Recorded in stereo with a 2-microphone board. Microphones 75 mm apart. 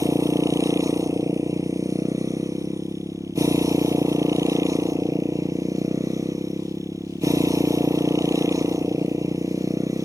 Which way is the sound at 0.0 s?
50° right (ahead or behind).